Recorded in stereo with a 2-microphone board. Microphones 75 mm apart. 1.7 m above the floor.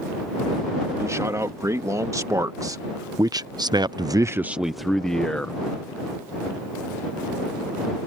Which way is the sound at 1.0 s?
40° right (ahead or behind).